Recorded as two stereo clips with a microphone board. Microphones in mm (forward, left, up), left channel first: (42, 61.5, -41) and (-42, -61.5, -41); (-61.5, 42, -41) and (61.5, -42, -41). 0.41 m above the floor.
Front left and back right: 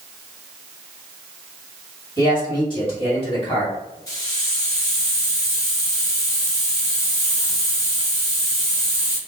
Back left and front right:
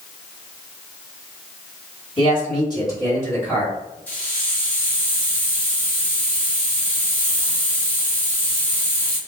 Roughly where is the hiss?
Left.